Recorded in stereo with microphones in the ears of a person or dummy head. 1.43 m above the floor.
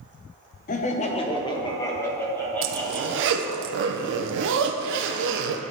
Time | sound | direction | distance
0.7 | laughter | 40° left (ahead or behind) | 0.6 m
2.6 | a zipper | 70° right (ahead or behind) | 0.6 m